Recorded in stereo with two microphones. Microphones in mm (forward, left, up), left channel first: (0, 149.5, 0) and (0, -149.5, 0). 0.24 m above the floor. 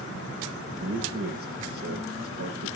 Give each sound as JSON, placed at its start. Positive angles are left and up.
{"t": 0.8, "sound": "a man speaking", "side_deg": -50, "distance_m": 7.5}